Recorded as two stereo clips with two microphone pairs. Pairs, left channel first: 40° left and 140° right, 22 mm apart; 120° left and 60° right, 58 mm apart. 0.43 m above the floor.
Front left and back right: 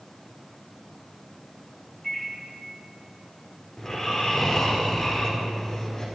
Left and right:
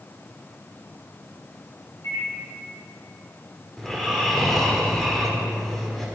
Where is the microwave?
120° left, 3 m.